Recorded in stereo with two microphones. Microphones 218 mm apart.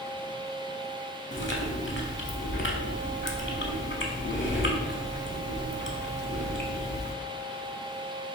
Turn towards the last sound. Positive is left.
turn(degrees=60)  # may be behind; listen again after turning